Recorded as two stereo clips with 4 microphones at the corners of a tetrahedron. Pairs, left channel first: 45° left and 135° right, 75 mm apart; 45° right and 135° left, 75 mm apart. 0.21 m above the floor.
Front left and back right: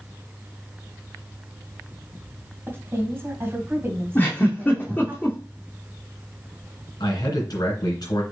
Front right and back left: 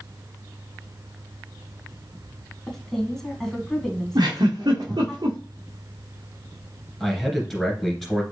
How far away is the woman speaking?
About 1.7 m.